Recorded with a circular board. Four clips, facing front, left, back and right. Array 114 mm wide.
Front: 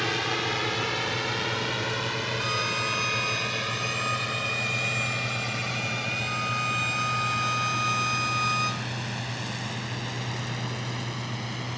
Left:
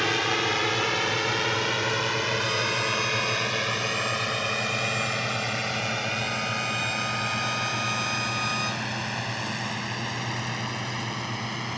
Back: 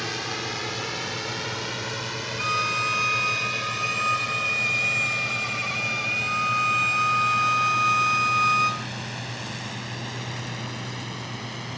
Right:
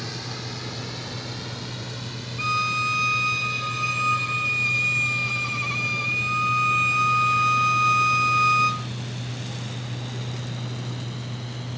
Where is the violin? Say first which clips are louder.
Right 2 dB, back 7 dB; 120° right.